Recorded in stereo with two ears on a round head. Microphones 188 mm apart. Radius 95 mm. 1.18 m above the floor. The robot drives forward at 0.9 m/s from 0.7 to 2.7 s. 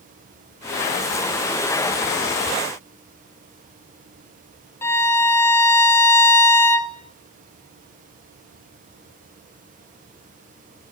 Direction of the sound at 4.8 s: 15° left (ahead or behind).